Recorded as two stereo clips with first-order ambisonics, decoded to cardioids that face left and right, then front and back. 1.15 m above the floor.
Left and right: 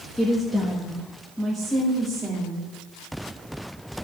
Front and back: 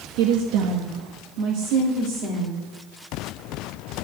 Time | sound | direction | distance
0.2 | a woman speaking | 175° left | 1.0 m